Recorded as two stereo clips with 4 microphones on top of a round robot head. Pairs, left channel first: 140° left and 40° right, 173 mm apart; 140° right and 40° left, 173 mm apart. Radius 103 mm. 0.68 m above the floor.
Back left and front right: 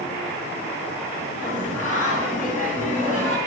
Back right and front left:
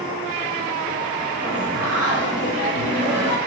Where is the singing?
170° right, 3.5 m.